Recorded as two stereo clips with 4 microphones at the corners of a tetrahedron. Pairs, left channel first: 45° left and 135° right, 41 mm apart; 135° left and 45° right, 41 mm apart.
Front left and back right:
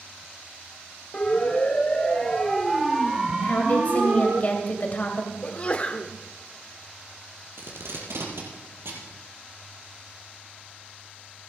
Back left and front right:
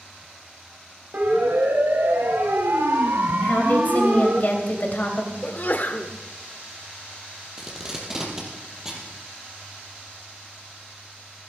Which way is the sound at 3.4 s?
95° left.